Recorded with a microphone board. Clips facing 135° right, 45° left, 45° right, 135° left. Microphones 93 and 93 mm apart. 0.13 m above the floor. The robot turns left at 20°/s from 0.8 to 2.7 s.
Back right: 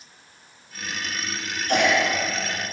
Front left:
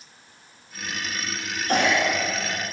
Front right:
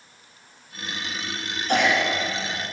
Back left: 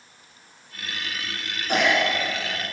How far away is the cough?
About 1.7 m.